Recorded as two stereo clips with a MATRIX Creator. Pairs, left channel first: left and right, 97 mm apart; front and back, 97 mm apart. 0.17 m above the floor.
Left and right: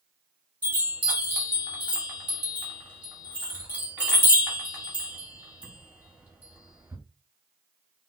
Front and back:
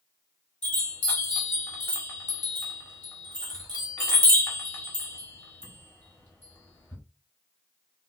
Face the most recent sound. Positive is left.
turn(degrees=-40)